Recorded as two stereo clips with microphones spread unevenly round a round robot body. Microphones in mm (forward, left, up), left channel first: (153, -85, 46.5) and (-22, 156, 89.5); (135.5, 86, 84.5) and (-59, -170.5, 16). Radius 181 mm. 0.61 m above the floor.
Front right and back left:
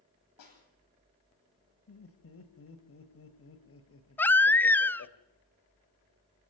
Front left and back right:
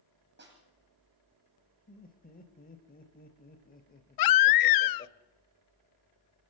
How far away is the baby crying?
About 0.6 m.